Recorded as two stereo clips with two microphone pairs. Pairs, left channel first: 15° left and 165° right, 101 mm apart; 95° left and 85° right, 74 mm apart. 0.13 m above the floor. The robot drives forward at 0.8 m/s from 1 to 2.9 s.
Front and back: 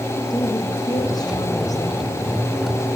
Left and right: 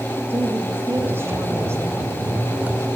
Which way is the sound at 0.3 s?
30° right.